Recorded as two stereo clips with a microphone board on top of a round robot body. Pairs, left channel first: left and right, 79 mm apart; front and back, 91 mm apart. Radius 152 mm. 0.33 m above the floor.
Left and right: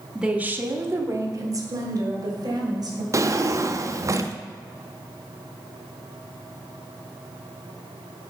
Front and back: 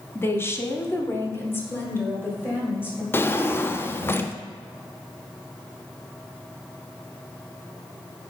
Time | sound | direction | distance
0.1 | a woman speaking | 20° right | 0.9 m
3.1 | a drawer | 55° right | 0.6 m